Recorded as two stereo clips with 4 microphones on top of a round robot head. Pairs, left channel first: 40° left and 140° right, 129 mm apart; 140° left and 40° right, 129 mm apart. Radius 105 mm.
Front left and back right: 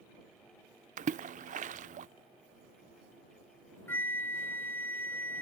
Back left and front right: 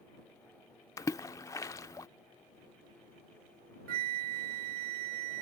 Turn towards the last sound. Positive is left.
turn(degrees=-35)